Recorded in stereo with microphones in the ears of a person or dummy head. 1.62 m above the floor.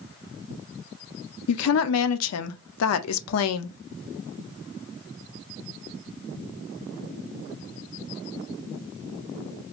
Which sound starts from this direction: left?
A woman speaking, at 1.5 s.